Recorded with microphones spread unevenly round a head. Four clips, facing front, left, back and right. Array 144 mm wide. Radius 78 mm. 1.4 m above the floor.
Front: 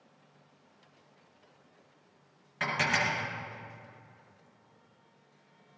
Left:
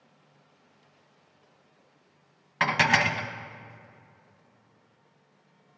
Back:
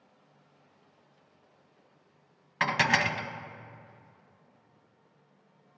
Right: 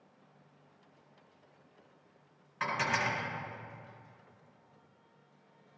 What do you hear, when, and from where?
2.6 s dishes clattering: 115° left, 0.8 m